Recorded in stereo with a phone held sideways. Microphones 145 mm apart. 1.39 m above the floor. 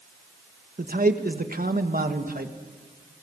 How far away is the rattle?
I don't hear a rattle.